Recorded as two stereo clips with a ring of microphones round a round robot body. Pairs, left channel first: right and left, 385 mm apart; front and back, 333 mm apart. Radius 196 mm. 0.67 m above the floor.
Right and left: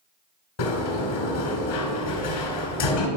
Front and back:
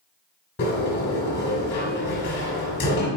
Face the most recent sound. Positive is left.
turn(degrees=-65)